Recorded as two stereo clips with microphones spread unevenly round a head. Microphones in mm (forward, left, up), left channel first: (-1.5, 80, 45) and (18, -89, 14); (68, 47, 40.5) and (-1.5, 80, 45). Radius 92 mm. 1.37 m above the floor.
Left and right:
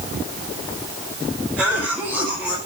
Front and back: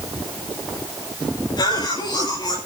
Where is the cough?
10° left, 8 m.